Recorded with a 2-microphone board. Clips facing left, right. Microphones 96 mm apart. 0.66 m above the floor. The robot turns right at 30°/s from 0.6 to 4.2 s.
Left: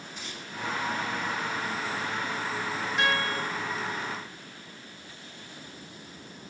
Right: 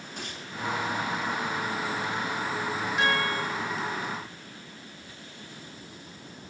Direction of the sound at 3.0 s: Centre (ahead or behind).